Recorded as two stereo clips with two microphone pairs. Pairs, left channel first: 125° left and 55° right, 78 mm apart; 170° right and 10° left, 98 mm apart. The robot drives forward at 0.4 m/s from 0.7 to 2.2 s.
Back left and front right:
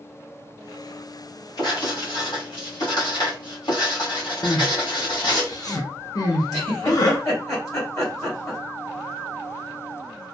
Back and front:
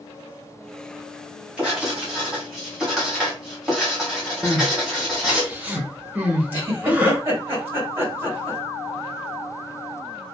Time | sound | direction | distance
1.6 | writing | 85° left | 1.7 m
4.4 | crying | 85° left | 0.7 m
6.5 | a giggle | 80° left | 1.9 m